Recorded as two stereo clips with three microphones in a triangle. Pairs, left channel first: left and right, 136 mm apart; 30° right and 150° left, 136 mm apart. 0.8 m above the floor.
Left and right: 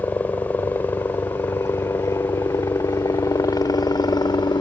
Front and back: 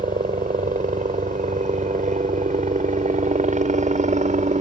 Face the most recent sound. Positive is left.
turn(degrees=145)